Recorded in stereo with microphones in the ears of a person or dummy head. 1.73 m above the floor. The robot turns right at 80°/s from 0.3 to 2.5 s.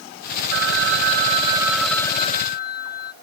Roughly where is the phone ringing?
Right.